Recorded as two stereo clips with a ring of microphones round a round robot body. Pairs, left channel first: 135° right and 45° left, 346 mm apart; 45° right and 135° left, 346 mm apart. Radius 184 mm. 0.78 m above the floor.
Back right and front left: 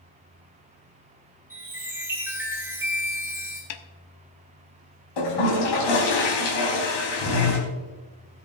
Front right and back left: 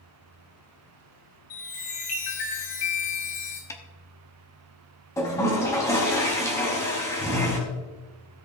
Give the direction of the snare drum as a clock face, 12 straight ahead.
4 o'clock.